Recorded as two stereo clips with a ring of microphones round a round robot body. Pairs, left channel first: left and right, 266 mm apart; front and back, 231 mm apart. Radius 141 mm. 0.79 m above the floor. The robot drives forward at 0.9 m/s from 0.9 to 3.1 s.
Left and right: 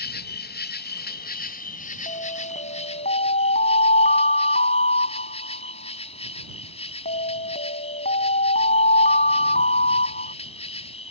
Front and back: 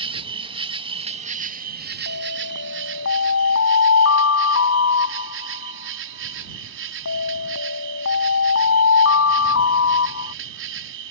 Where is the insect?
125° left; by 11.1 s 155° left.